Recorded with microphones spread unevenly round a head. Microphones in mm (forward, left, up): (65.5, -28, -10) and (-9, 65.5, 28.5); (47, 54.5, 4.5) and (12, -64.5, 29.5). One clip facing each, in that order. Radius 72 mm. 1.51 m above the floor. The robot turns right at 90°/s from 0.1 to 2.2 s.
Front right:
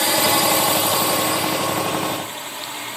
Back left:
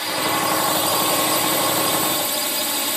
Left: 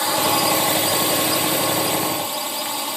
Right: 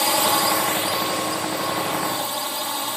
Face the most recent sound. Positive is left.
turn(degrees=160)